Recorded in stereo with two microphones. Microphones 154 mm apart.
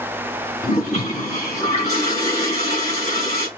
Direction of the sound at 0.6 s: 45° left (ahead or behind).